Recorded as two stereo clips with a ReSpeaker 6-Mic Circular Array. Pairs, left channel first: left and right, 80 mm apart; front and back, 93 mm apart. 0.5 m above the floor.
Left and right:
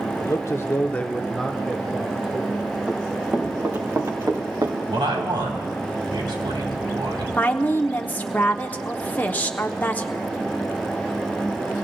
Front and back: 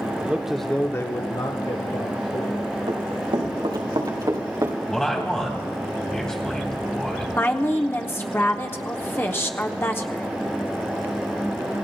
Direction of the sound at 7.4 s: 40° left.